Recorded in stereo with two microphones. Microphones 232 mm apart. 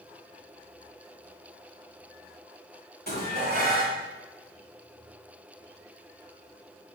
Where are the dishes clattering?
45° right (ahead or behind), 3 m.